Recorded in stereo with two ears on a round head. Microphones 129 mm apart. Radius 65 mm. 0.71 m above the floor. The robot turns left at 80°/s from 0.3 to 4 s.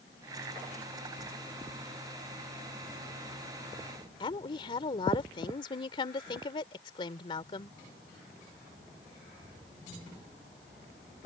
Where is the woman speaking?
35° left (ahead or behind).